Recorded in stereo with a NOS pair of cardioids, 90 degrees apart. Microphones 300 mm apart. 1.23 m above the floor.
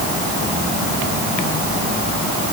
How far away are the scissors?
No scissors in this recording.